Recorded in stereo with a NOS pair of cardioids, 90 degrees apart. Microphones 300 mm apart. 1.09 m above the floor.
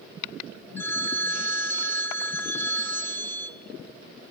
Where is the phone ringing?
5° left, 0.7 m.